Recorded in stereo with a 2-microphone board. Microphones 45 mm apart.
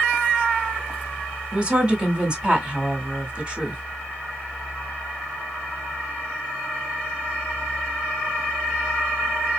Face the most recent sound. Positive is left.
turn(degrees=-20)  # may be behind; listen again after turning